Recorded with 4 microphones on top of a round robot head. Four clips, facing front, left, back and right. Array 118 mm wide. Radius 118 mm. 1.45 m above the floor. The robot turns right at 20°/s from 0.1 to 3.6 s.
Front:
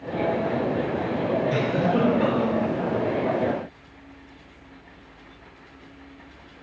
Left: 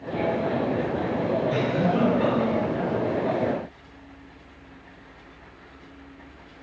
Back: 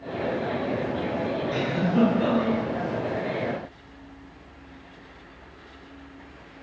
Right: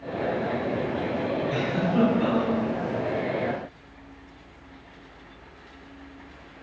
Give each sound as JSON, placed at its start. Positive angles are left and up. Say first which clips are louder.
{"t": 1.5, "sound": "a giggle", "louder": "left 2 dB, front 2 dB", "azimuth_deg": 0, "distance_m": 2.5}